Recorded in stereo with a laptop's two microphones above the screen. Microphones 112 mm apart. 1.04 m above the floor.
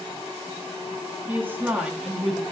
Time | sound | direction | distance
1.3 | a woman speaking | 20° right (ahead or behind) | 3 m